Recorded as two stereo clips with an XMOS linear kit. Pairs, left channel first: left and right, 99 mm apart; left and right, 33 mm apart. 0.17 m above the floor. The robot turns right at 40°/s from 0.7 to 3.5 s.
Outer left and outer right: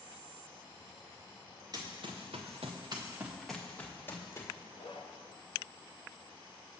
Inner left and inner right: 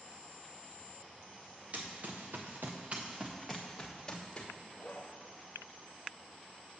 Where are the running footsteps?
40° right (ahead or behind), 1.6 m; by 4.5 s 30° left (ahead or behind), 1.8 m.